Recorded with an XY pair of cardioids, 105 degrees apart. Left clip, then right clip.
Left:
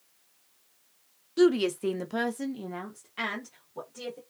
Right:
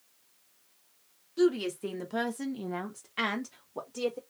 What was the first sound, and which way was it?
A woman speaking, 50° left.